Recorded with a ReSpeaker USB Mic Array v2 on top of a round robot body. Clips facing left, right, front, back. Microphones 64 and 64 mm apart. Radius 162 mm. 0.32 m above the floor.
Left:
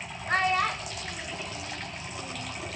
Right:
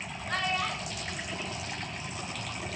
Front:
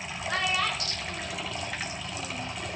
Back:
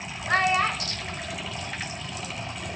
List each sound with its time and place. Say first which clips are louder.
0.3 s a child speaking: left 6 dB, back 6 dB; 140° left, 1.5 m; by 2.5 s 65° left, 2 m